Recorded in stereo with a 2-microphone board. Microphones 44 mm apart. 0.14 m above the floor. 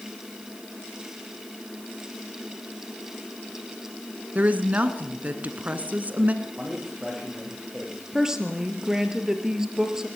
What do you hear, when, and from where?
4.3 s a woman speaking: 40° right (ahead or behind), 1.7 m
6.4 s a man speaking: 20° right (ahead or behind), 9.5 m
8.1 s a woman speaking: 15° right (ahead or behind), 3 m